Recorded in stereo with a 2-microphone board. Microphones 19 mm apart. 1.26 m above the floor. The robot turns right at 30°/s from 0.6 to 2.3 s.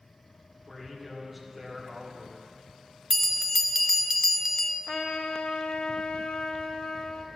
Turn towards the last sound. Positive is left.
turn(degrees=60)  # may be behind; listen again after turning